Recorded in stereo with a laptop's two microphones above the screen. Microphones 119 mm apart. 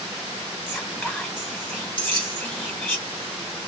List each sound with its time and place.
0.7 s whispering: centre (ahead or behind), 1.0 m
2.0 s keys jangling: 45° right (ahead or behind), 1.5 m